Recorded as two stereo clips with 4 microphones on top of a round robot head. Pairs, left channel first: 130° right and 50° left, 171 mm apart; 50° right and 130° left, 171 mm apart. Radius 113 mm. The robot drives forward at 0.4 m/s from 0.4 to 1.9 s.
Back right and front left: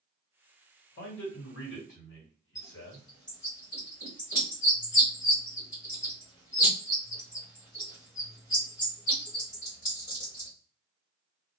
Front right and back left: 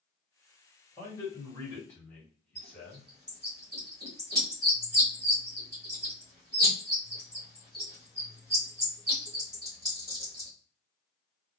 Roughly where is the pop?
I don't hear a pop.